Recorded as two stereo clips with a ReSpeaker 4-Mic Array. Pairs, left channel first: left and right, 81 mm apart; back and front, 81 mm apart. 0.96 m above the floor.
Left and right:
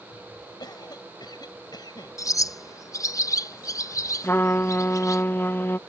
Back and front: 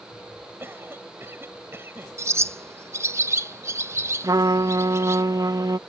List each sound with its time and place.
0.6 s a cough: 60° left
2.2 s a bird: 50° left
4.2 s a trumpet: 30° left